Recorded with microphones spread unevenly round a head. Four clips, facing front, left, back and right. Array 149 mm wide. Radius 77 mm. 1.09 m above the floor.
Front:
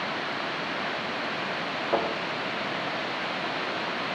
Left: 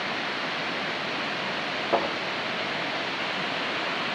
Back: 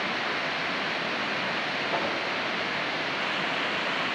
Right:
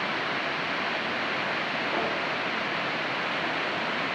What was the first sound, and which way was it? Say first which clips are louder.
A thud: left 6 dB, front 5 dB; 50° left.